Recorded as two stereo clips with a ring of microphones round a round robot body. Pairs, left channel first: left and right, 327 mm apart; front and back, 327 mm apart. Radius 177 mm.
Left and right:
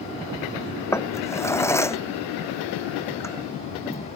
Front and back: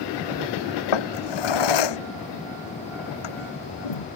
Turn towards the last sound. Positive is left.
turn(degrees=10)